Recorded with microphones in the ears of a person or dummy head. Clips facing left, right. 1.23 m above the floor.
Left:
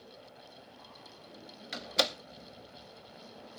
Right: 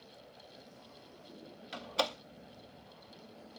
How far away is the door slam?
About 0.5 m.